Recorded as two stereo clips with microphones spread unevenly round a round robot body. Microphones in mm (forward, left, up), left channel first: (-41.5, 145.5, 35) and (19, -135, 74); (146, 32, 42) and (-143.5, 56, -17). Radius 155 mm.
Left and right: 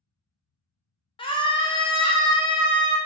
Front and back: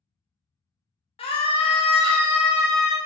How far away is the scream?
About 0.6 m.